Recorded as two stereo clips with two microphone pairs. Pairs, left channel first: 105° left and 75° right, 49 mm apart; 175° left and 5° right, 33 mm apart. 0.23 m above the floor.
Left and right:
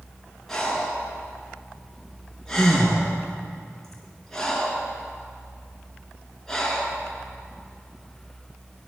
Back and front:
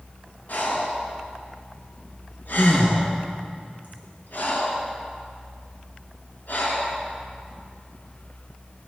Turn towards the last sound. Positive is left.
turn(degrees=-175)